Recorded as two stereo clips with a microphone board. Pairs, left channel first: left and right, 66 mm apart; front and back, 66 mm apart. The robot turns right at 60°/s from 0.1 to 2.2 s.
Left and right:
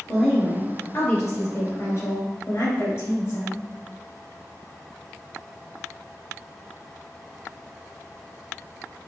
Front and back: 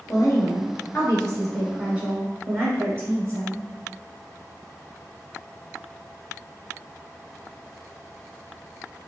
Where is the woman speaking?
5° left, 1.8 m; by 3.6 s 130° left, 1.8 m.